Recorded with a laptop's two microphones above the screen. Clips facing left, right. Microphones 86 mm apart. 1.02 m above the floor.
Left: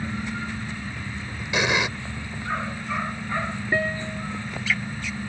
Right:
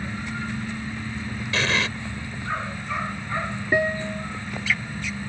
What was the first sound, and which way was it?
An explosion, 15° left (ahead or behind).